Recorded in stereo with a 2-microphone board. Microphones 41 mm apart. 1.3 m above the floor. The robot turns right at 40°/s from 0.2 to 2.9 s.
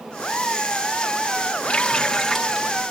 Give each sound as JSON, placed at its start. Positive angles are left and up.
{"t": 1.6, "sound": "a running tap", "azimuth_deg": 150, "distance_m": 1.6}